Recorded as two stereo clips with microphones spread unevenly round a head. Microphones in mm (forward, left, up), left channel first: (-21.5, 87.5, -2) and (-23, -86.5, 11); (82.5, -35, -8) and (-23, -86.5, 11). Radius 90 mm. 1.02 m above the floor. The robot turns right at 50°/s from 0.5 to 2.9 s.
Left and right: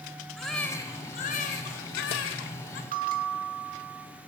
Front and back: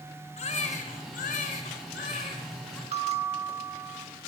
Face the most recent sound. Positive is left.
turn(degrees=-130)